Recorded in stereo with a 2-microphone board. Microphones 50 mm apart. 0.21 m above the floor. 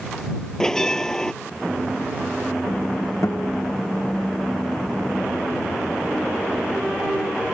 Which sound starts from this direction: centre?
A bell, at 0.6 s.